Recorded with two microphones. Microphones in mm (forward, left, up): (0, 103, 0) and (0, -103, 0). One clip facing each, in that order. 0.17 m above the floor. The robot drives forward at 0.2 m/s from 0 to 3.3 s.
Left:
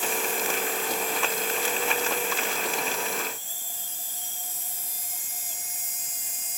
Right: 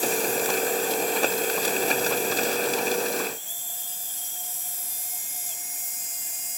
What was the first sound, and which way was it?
Only background noise.